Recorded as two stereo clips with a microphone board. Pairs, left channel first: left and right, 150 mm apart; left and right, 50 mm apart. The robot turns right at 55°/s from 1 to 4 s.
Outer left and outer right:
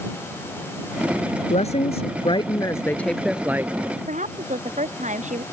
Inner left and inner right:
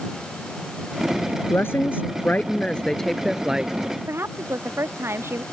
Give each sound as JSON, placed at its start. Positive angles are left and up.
{"t": 1.5, "sound": "a woman speaking", "azimuth_deg": 85}
{"t": 4.1, "sound": "a woman speaking", "side_deg": -55}